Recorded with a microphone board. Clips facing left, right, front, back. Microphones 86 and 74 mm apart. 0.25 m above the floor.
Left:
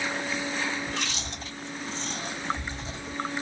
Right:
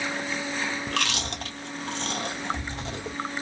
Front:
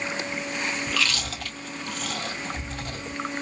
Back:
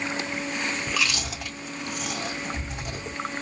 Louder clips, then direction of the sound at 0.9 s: Right 4 dB, even; 105° right.